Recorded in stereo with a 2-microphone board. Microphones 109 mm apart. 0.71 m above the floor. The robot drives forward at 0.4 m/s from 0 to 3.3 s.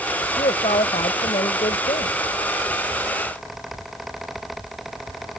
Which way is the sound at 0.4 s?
75° left (ahead or behind).